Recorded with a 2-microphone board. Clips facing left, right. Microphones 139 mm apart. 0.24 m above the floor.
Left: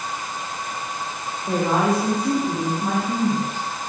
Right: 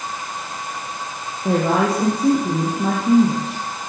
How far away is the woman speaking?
About 9 m.